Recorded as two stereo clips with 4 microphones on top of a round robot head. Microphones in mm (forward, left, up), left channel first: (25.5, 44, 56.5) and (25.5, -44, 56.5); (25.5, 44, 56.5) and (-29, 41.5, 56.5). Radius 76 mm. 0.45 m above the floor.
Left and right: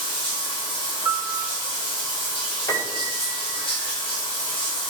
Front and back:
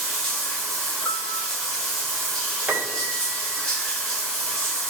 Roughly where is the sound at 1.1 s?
Ahead right.